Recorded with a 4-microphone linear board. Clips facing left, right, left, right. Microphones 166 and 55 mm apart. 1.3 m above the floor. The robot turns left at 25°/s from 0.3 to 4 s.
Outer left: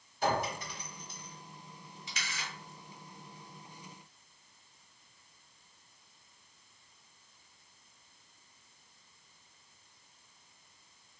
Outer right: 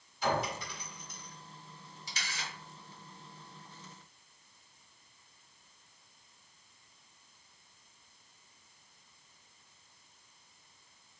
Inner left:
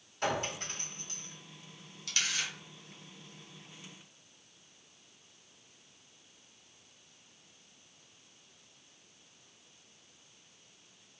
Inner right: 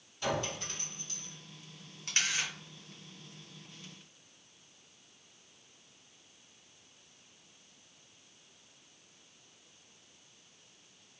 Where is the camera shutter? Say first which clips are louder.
Even, inner right 2 dB; 35° right (ahead or behind), 1.6 m; by 2.5 s 25° right (ahead or behind), 1.6 m.